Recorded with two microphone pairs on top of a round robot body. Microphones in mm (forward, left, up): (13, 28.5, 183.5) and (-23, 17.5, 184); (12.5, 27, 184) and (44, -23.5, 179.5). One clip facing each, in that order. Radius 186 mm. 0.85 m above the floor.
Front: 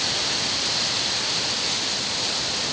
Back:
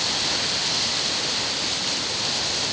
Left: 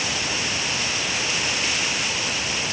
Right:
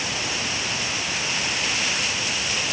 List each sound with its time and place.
Only background noise.